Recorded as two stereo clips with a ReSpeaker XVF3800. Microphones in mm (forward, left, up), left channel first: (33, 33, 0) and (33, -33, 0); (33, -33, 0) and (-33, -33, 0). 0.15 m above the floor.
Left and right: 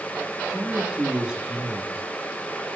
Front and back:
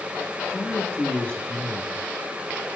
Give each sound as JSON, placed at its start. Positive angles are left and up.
{"t": 0.5, "sound": "a man speaking", "azimuth_deg": -35, "distance_m": 1.2}